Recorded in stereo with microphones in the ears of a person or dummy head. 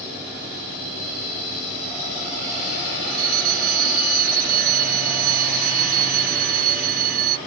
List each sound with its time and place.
3.1 s a fire alarm: 50° right (ahead or behind)